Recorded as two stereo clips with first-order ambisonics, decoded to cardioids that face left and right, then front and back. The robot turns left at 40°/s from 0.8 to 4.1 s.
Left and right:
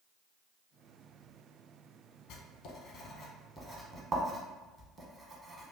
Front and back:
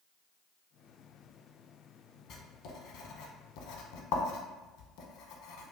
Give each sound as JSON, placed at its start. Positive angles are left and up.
{"t": 2.3, "sound": "writing", "azimuth_deg": 55, "distance_m": 0.7}